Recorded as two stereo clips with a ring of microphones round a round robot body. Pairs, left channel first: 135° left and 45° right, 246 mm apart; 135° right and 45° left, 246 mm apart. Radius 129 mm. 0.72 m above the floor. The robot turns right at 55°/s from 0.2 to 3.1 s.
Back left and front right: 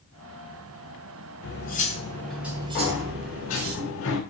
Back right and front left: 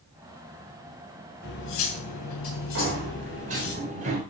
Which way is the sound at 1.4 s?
175° left.